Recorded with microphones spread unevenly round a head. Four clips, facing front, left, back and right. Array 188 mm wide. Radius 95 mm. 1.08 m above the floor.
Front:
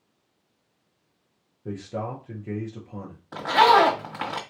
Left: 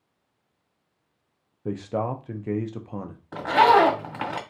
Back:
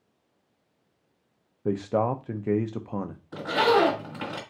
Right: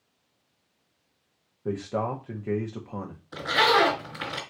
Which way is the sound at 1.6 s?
175° left.